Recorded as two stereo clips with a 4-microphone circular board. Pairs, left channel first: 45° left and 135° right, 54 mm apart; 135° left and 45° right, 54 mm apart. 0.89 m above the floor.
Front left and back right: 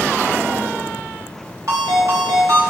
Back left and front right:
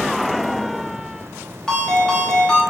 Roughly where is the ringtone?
Behind right.